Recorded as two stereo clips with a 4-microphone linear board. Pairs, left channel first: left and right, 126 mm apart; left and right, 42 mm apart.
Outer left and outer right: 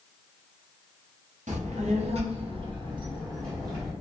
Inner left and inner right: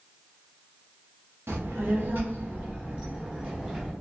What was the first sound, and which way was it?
A child speaking, 70° right (ahead or behind).